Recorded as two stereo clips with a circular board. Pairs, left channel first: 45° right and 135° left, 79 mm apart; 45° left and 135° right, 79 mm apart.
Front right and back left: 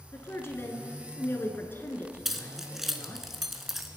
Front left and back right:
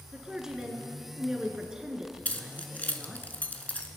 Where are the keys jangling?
55° left, 0.8 m.